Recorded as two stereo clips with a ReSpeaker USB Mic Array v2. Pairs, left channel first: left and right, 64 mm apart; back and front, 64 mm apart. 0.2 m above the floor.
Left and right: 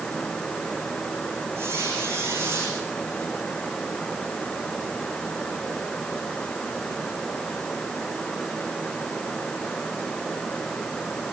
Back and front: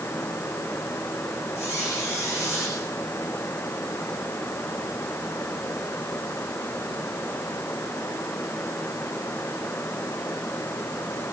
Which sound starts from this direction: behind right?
A squeak, at 1.6 s.